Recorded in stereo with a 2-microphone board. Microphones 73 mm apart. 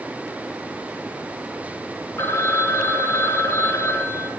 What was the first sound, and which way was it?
A phone ringing, 40° left (ahead or behind).